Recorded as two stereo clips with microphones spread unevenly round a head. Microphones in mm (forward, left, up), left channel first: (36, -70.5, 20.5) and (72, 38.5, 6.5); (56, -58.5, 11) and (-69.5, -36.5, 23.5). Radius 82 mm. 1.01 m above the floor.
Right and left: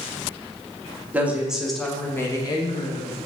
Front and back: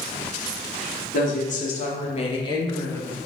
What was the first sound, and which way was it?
A woman speaking, straight ahead.